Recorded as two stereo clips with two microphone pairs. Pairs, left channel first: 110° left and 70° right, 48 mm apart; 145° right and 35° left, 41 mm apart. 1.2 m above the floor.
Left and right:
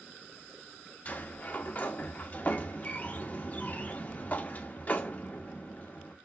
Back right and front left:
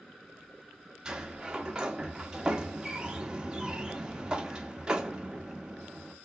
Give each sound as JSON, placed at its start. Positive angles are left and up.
{"t": 1.1, "sound": "a sliding door", "azimuth_deg": 95, "distance_m": 0.6}